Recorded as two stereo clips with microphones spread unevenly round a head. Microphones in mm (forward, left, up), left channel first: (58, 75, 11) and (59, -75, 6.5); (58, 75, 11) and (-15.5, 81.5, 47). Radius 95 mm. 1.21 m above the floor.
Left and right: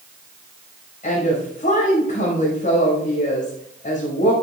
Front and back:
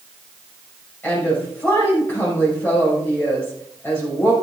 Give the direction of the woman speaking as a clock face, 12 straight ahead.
10 o'clock.